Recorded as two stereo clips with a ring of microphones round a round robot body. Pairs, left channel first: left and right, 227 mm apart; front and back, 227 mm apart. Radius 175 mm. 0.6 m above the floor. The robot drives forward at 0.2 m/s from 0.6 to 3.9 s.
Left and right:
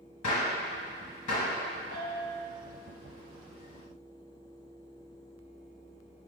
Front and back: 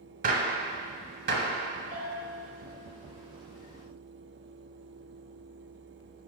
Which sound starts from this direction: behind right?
A bell, at 1.9 s.